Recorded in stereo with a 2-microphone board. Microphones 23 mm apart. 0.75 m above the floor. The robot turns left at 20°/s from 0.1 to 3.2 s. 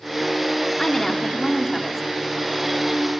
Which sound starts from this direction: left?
A woman speaking, at 0.8 s.